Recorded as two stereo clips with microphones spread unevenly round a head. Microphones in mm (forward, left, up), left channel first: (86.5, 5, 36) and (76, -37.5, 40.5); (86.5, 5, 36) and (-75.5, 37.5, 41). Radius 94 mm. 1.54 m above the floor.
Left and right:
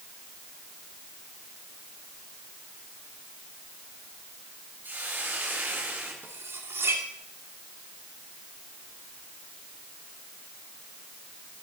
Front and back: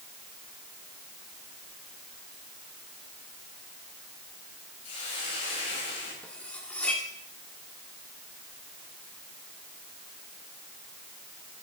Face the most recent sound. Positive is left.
turn(degrees=-95)